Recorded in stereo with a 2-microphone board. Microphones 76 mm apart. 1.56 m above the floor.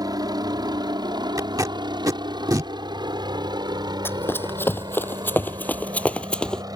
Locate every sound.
0.0 s a helicopter: 60° right (ahead or behind); by 6.8 s 55° right (ahead or behind)
1.4 s tape being pulled: 55° right (ahead or behind)
4.0 s running footsteps: 30° left (ahead or behind); by 6.6 s 10° left (ahead or behind)